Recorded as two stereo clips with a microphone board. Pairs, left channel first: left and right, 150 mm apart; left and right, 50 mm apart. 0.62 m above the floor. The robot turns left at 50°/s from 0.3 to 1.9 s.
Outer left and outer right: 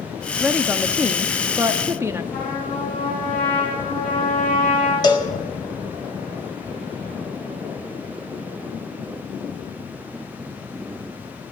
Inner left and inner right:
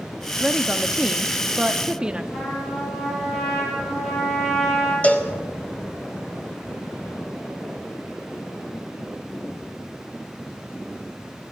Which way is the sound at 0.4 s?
Centre (ahead or behind).